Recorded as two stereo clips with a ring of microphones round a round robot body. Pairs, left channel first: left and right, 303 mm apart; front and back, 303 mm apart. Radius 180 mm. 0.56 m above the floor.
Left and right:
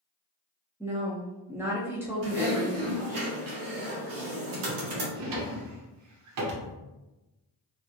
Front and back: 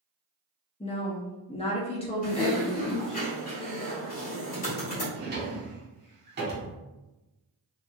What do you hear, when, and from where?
0.8 s a woman speaking: 25° right, 0.6 m
2.2 s typing on a keyboard: 65° right, 0.9 m
5.2 s a drawer: 120° right, 0.7 m